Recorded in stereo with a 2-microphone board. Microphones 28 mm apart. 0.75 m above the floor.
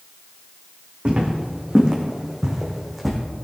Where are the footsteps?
40° right (ahead or behind), 3 m; by 3.2 s 10° left (ahead or behind), 2.5 m.